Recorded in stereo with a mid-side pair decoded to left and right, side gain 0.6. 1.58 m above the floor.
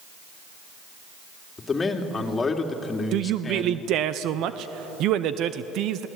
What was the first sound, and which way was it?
A man speaking, 25° left.